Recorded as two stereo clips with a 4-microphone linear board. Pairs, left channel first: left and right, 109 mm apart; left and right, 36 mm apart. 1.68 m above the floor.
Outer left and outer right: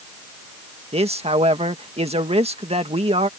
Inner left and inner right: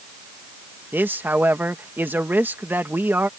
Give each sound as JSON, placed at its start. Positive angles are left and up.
{"t": 0.9, "sound": "a man speaking", "side_deg": -75}